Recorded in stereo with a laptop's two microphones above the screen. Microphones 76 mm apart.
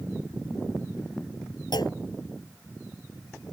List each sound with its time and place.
1.7 s a clunk: 75° left (ahead or behind)